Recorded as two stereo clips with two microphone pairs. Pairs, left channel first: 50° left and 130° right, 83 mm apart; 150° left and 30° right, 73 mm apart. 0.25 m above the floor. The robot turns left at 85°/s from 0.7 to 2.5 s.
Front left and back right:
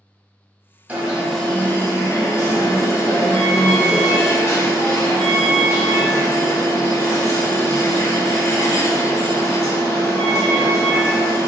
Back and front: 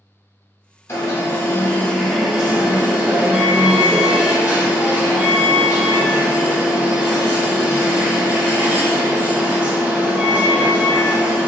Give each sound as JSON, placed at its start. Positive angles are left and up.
{"t": 0.9, "sound": "an alarm", "azimuth_deg": 165, "distance_m": 0.8}